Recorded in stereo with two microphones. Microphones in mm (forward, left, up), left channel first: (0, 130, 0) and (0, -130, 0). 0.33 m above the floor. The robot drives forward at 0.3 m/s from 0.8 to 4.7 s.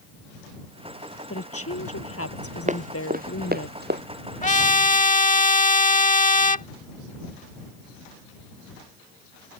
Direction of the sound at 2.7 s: 30° right (ahead or behind).